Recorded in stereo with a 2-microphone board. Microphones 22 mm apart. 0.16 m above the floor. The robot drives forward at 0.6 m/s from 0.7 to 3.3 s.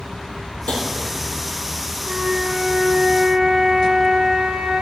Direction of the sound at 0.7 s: 60° left (ahead or behind).